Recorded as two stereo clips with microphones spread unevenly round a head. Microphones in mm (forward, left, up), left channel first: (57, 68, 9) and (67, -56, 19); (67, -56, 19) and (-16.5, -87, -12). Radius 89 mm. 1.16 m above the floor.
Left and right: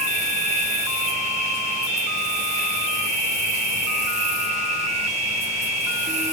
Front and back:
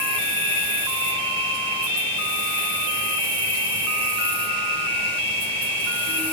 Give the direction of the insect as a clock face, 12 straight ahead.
7 o'clock.